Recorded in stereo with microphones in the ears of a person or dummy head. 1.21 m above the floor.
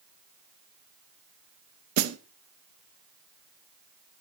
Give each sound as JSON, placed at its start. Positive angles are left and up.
{"t": 2.0, "sound": "a snare drum", "side_deg": -75, "distance_m": 1.0}